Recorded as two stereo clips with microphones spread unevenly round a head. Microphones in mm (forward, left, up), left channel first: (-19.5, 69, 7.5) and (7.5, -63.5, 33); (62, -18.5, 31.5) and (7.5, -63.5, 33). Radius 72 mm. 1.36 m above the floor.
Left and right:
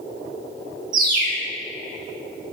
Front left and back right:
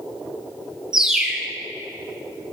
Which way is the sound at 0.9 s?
60° right.